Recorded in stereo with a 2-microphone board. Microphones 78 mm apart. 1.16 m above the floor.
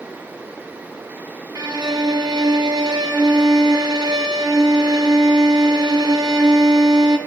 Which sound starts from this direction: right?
A violin, at 1.6 s.